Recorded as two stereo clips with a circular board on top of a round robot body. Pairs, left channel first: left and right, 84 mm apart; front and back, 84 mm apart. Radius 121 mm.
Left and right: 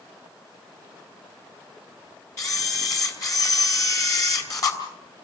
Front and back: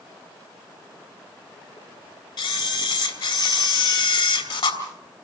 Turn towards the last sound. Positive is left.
turn(degrees=40)